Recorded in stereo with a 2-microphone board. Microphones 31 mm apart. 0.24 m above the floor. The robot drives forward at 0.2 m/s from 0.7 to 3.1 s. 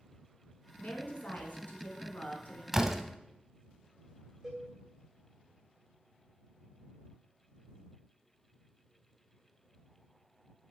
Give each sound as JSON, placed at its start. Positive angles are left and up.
{"t": 0.8, "sound": "a woman speaking", "side_deg": 60, "distance_m": 1.9}
{"t": 2.7, "sound": "a door slam", "side_deg": -15, "distance_m": 0.8}
{"t": 4.4, "sound": "a cowbell", "side_deg": -20, "distance_m": 3.0}